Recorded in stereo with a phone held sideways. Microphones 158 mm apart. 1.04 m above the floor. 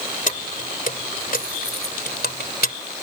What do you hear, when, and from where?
0.3 s keys jangling: 55° left (ahead or behind); by 2.8 s 80° left